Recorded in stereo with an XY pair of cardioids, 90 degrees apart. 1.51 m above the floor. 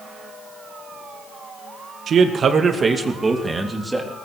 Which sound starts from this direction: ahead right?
A man speaking, at 2.1 s.